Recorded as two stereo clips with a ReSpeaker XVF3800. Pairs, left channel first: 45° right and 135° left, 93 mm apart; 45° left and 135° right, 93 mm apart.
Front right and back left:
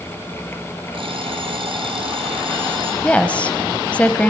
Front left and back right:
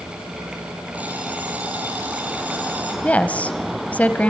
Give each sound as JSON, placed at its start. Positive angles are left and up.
{"t": 0.9, "sound": "an alarm clock", "azimuth_deg": 150, "distance_m": 3.5}
{"t": 3.0, "sound": "a woman speaking", "azimuth_deg": 5, "distance_m": 1.0}